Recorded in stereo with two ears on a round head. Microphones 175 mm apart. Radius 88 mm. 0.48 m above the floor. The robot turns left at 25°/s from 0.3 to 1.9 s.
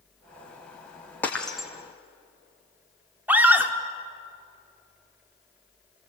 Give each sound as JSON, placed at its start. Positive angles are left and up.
{"t": 1.2, "sound": "breaking glass", "side_deg": 10, "distance_m": 2.5}
{"t": 3.3, "sound": "a scream", "side_deg": -10, "distance_m": 1.4}